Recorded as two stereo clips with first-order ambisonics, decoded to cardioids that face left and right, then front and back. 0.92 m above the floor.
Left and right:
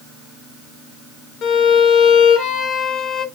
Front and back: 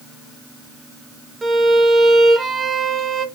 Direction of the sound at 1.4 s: 110° left.